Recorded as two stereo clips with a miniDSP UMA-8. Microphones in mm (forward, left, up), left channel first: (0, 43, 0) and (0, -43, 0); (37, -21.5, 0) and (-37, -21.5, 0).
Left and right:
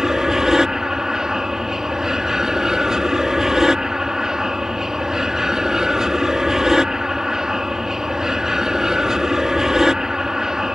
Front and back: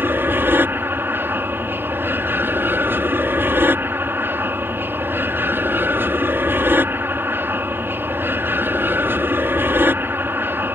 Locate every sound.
0.0 s an aircraft: 170° right